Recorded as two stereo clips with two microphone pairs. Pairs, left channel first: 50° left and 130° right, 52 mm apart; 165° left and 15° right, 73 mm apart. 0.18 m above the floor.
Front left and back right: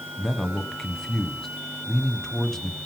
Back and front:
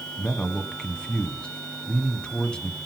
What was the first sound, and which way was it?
A man speaking, 115° left.